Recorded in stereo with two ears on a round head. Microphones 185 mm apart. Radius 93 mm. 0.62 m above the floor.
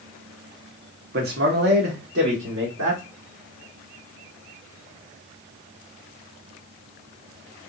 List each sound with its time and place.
1.1 s a man speaking: 45° right (ahead or behind), 1.4 m; by 3.0 s 60° right (ahead or behind), 2.0 m